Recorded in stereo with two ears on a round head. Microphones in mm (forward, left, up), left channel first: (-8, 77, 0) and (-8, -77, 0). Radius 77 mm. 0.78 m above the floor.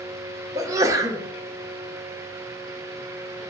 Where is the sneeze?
20° right (ahead or behind), 0.6 m.